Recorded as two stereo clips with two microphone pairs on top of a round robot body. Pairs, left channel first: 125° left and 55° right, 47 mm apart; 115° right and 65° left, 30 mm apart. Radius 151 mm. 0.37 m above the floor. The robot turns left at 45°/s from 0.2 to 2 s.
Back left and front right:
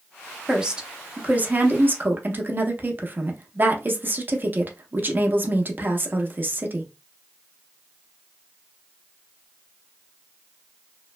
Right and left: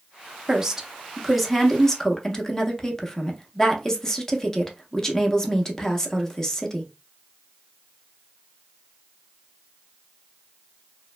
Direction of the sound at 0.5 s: 25° left.